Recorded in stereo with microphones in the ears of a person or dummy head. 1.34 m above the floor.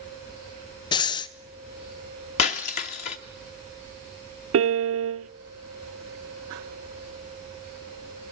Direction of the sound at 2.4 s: 35° left (ahead or behind).